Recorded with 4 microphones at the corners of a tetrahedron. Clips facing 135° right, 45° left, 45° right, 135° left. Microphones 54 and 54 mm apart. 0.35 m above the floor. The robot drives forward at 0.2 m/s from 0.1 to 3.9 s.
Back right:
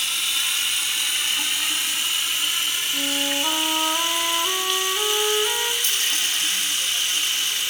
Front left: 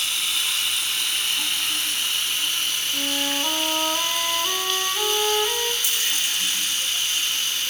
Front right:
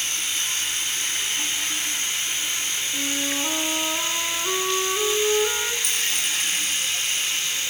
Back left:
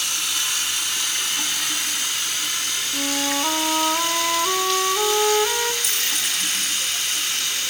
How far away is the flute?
About 1.4 m.